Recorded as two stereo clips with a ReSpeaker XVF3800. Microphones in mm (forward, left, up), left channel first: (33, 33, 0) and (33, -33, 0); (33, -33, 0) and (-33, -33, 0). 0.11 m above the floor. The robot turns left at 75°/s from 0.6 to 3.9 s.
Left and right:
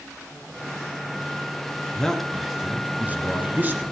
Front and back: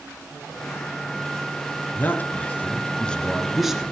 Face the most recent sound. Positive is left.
turn(degrees=-120)